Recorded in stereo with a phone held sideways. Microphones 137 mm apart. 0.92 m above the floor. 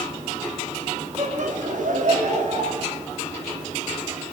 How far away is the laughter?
About 2 m.